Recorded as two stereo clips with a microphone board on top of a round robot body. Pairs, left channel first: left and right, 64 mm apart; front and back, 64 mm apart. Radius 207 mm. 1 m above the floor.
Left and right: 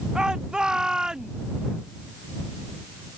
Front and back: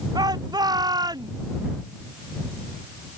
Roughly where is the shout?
Behind.